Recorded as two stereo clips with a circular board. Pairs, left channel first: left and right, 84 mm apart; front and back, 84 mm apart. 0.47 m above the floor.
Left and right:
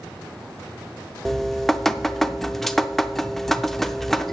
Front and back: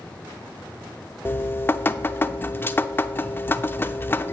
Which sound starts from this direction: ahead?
Dripping, at 1.2 s.